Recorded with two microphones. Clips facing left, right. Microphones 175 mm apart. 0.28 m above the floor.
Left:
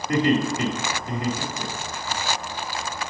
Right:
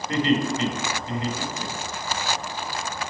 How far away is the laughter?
About 1.1 m.